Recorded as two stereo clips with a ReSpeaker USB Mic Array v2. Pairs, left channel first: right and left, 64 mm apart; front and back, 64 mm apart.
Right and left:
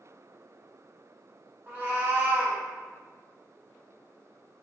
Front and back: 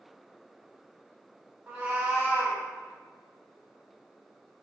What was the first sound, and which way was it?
A cat meowing, 130° left.